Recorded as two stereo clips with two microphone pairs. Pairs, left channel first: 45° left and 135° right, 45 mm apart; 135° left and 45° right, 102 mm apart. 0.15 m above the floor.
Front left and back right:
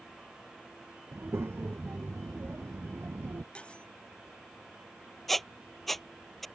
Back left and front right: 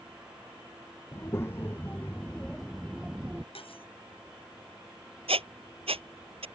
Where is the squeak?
45° right.